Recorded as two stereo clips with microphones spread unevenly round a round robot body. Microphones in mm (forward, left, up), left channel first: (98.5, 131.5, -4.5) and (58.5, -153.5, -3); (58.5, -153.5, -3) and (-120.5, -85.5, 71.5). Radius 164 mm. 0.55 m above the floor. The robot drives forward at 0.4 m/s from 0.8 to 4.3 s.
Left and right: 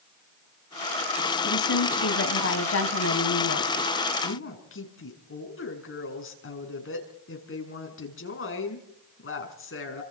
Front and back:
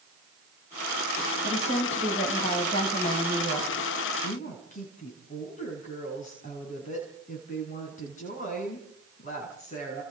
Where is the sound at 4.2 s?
35° left, 6 m.